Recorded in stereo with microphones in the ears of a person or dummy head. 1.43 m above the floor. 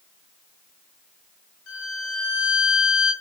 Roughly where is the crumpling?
No crumpling in this recording.